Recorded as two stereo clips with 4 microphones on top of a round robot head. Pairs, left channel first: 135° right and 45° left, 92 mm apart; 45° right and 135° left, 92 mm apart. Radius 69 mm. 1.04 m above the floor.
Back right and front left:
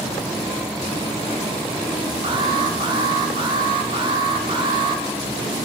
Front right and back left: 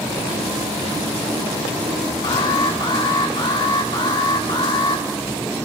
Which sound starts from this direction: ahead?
An alarm, at 2.2 s.